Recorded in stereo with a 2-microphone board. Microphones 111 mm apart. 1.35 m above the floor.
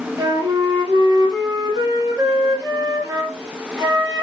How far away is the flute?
About 2.5 m.